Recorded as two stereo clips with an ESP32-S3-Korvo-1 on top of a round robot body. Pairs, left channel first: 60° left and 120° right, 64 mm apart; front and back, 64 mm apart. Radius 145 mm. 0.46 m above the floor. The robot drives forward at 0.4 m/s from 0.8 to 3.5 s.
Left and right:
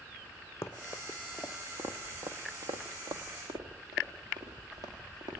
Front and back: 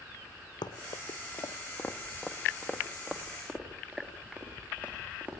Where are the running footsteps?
5° left, 1.7 m; by 5.4 s 110° right, 5.5 m.